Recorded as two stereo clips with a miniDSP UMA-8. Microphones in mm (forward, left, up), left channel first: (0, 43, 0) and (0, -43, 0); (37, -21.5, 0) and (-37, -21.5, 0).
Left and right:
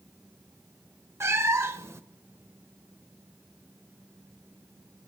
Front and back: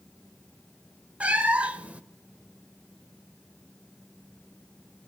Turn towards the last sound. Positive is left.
turn(degrees=-120)